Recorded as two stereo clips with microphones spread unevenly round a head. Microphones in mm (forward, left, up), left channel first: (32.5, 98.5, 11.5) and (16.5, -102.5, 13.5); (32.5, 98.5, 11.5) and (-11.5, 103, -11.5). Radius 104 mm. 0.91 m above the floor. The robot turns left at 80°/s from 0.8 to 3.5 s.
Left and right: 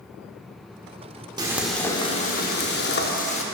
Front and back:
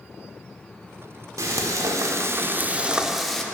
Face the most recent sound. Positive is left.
turn(degrees=30)